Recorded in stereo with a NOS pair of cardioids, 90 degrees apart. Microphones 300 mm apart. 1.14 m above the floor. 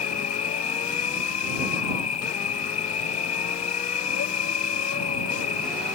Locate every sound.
0.0 s an insect: 65° left